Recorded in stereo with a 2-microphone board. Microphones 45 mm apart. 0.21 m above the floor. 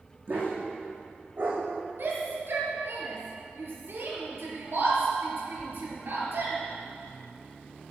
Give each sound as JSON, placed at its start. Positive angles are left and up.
{"t": 0.3, "sound": "a dog barking", "side_deg": -45, "distance_m": 4.0}
{"t": 2.0, "sound": "a shout", "side_deg": -65, "distance_m": 4.0}